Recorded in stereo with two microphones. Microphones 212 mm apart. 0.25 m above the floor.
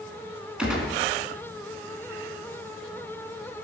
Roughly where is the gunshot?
Centre.